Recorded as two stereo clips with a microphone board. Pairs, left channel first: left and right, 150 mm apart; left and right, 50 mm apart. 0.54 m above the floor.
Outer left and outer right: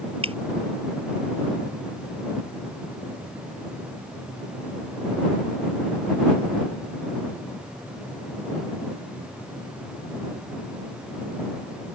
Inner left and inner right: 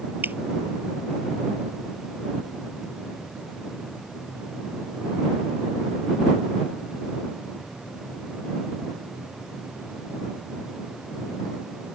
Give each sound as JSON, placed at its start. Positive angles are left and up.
{"t": 0.2, "sound": "dripping", "side_deg": -40}